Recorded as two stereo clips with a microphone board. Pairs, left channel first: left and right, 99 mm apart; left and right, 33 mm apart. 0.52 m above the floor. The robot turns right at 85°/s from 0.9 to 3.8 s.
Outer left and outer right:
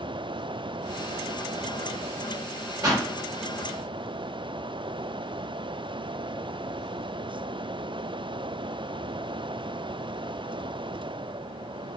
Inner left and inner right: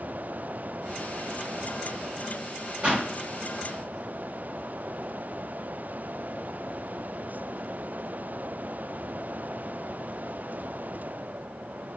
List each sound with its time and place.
2.8 s a pop: 30° right (ahead or behind), 1.4 m; by 3.1 s 45° right (ahead or behind), 1.4 m